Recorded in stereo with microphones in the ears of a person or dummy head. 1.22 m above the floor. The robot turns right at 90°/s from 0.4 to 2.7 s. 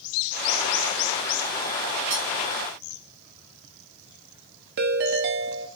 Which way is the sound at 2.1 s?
35° right (ahead or behind).